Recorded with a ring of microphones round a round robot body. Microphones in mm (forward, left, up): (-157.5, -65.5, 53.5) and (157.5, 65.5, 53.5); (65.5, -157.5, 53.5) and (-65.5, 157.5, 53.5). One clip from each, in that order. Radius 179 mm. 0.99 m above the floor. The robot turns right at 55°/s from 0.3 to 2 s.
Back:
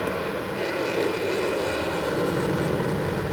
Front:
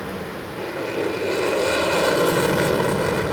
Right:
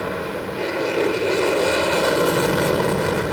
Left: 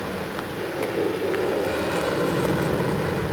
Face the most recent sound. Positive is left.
turn(degrees=-20)